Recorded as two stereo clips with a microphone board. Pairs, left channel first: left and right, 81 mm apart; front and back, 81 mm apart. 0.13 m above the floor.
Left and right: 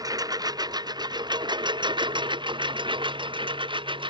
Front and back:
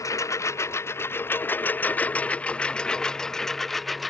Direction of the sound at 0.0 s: 50° right.